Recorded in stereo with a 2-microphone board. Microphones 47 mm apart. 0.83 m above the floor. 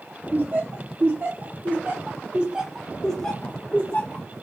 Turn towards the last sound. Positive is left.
turn(degrees=45)  # may be behind; listen again after turning